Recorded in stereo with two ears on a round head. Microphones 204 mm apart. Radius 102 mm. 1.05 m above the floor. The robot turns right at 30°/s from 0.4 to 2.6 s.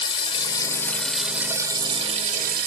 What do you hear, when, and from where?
0.0 s running water: 155° left, 1.5 m; by 2.7 s 135° right, 1.5 m